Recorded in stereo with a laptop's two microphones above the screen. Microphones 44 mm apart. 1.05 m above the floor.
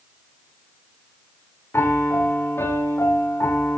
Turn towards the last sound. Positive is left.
turn(degrees=75)  # may be behind; listen again after turning